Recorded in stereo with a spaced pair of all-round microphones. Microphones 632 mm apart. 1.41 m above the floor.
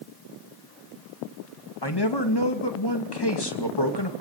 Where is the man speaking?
40° left (ahead or behind), 2.5 m.